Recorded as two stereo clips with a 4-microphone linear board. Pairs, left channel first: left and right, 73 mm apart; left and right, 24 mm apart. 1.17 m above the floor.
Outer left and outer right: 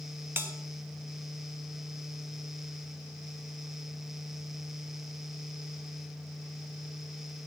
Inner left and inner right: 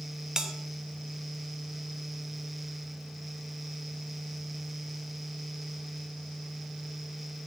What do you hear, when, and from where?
0.4 s a bell: 30° right (ahead or behind), 1.0 m